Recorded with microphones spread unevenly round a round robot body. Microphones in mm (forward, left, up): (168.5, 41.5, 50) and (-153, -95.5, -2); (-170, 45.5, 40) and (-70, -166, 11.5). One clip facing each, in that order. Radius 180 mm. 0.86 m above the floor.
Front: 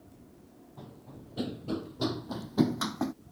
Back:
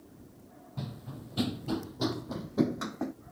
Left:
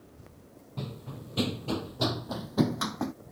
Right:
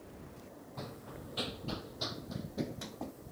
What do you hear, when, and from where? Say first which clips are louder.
0.8 s running footsteps: back 6 dB, left 6 dB; 160° left; by 3.1 s 85° left